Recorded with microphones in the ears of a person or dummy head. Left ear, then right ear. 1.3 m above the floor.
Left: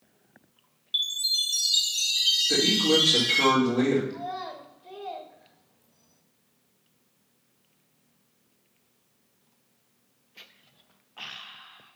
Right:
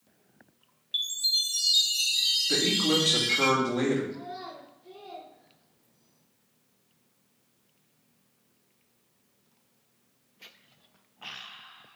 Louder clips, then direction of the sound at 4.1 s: Left 5 dB; 40° left (ahead or behind).